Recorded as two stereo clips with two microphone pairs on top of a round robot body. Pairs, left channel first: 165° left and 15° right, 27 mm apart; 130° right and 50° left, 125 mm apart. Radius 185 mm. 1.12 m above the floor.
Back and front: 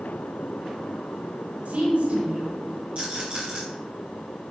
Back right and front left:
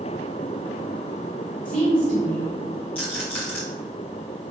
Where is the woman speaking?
30° right, 2 m.